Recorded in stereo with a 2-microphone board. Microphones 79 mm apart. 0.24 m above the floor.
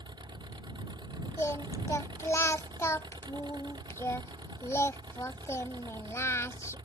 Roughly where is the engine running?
Right.